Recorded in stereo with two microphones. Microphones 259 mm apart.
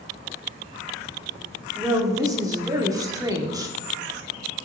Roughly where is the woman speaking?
Centre.